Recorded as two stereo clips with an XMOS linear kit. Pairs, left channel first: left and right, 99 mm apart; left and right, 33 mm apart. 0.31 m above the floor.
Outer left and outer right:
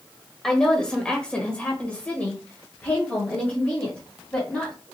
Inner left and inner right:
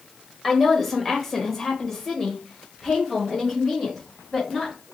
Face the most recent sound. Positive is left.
turn(degrees=15)  # may be behind; listen again after turning